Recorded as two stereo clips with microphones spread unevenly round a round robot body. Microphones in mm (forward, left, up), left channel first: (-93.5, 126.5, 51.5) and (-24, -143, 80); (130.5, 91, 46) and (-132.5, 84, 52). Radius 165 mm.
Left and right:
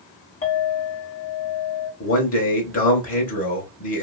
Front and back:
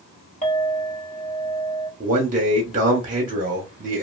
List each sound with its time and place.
0.4 s a clink: 60° left, 1.8 m
2.0 s a man speaking: 125° left, 1.4 m